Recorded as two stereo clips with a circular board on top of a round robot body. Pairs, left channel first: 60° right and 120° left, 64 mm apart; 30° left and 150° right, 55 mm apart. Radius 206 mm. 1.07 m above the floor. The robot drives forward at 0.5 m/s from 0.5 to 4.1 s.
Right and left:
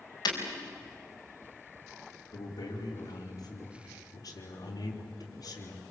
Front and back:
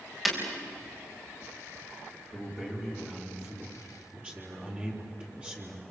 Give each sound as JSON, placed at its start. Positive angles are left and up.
{"t": 0.2, "sound": "breaking glass", "azimuth_deg": -65, "distance_m": 4.5}
{"t": 2.3, "sound": "a man speaking", "azimuth_deg": -70, "distance_m": 4.0}